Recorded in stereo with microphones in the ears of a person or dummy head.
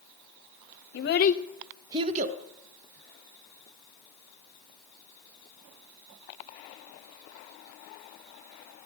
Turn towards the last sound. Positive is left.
turn(degrees=-45)  # may be behind; listen again after turning